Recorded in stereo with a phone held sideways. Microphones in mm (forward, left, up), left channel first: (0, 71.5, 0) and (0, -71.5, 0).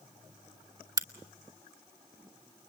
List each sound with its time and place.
1.0 s a crack: 25° right (ahead or behind), 1.2 m